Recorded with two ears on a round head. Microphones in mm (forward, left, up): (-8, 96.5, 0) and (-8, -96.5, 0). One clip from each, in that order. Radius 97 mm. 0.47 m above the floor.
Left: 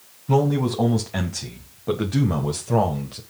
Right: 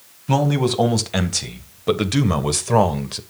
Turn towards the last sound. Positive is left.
turn(degrees=-55)  # may be behind; listen again after turning